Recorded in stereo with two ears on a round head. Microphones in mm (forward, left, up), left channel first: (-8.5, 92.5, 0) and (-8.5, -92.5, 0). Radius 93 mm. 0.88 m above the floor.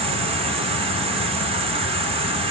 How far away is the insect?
About 0.7 m.